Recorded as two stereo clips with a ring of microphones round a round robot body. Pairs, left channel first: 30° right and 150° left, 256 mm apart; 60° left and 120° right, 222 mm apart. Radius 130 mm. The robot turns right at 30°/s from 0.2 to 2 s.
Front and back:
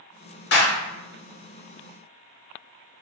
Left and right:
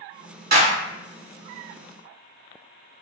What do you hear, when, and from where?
0.5 s a clap: 75° right, 1.3 m; by 0.7 s 70° right, 1.3 m